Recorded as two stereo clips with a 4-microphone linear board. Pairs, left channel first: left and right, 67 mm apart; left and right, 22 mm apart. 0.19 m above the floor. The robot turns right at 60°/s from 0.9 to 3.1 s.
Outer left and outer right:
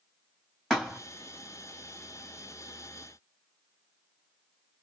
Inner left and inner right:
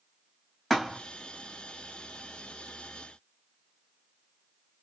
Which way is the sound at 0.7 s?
10° left (ahead or behind).